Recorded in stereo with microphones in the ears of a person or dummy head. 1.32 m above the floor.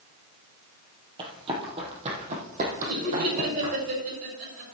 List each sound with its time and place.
1.2 s running footsteps: 20° right (ahead or behind), 2.5 m; by 3.9 s 45° right (ahead or behind), 4.5 m
2.9 s laughter: 45° right (ahead or behind), 6 m